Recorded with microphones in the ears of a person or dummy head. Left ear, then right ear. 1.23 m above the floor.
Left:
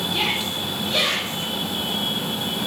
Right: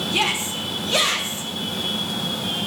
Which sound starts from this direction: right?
A shout, at 0.1 s.